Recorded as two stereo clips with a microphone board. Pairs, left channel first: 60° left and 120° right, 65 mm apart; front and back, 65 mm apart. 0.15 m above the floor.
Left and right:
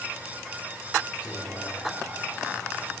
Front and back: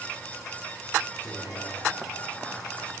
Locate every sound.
1.2 s whispering: 15° right, 2.0 m